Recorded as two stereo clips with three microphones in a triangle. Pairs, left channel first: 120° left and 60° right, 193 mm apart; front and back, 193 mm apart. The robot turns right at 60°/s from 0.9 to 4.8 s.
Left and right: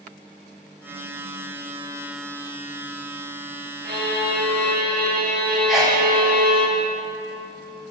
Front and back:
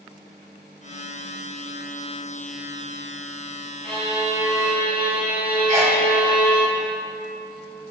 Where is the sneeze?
145° right, 1.3 m.